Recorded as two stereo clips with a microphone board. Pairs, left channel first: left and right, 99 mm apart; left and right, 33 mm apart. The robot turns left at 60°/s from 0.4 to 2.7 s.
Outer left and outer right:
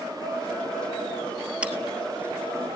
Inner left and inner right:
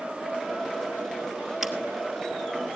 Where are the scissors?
15° right (ahead or behind), 1.8 m; by 1.7 s 5° right (ahead or behind), 1.8 m.